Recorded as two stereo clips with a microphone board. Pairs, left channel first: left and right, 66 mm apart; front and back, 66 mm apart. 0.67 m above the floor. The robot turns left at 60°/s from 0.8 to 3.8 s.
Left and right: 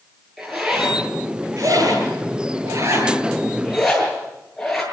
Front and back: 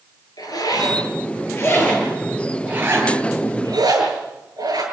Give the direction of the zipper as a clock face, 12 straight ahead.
12 o'clock.